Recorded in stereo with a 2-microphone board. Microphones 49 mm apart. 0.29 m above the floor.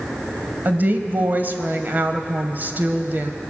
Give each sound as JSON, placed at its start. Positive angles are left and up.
{"t": 0.7, "sound": "a woman speaking", "side_deg": -40, "distance_m": 1.1}